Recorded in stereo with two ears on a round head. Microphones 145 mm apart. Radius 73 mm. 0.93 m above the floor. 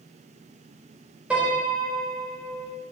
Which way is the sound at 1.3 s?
5° right (ahead or behind).